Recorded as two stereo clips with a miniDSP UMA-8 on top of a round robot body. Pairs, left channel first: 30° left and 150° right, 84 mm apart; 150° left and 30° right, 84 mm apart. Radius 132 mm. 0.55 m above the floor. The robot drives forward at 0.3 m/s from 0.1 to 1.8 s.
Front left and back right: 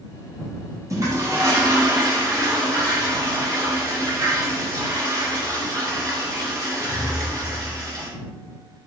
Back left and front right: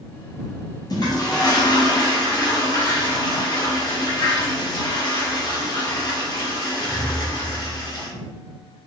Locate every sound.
0.9 s a toilet flushing: 170° left, 1.3 m; by 8.1 s 175° left, 1.6 m